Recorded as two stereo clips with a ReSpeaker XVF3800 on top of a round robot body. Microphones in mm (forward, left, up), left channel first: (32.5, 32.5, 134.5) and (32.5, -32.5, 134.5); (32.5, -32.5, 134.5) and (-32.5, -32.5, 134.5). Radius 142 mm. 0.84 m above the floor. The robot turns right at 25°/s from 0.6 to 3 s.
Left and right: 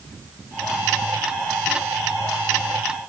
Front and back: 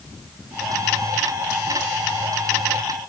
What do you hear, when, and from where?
Only background noise.